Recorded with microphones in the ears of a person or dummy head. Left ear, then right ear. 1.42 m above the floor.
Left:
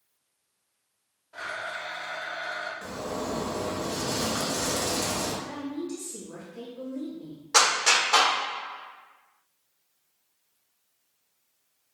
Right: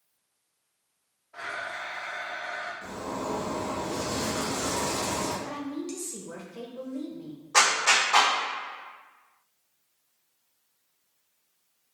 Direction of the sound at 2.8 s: 75° left (ahead or behind).